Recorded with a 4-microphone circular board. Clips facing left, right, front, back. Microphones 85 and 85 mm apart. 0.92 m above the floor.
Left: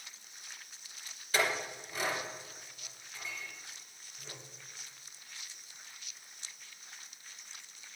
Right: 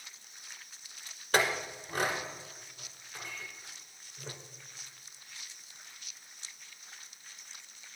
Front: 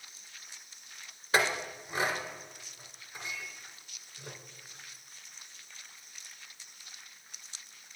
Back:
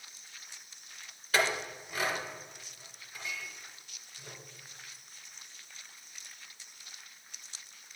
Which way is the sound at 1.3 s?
65° right.